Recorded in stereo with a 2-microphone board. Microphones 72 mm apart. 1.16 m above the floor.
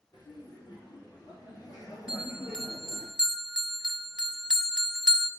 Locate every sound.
0.1 s laughter: 80° left, 4.5 m; by 3.1 s 65° left (ahead or behind), 3.5 m
2.1 s a bell: 15° right (ahead or behind), 1.4 m